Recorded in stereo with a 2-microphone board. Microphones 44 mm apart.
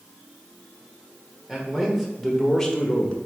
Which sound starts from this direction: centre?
A man speaking, at 1.5 s.